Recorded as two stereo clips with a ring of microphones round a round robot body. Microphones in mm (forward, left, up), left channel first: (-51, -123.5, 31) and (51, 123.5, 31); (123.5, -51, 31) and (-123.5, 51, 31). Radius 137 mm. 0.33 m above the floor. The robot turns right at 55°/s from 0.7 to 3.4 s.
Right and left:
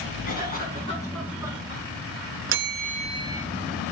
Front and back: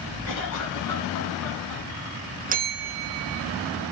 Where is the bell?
100° left, 0.6 m; by 3.5 s 150° left, 0.6 m.